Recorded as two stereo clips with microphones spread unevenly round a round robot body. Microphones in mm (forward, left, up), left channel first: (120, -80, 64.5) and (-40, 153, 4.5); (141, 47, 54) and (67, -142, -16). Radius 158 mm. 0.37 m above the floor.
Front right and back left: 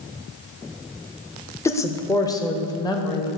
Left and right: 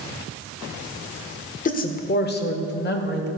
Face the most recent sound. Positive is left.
turn(degrees=25)